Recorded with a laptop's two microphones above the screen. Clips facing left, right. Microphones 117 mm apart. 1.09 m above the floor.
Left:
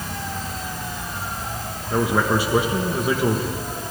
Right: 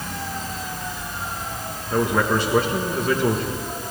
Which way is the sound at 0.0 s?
60° left (ahead or behind).